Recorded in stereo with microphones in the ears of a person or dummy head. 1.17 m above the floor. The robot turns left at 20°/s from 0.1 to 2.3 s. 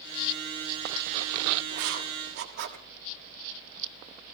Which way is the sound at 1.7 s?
70° right (ahead or behind).